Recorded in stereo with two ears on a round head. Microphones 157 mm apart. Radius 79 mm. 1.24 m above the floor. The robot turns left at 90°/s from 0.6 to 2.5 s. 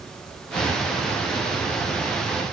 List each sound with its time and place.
Only background noise.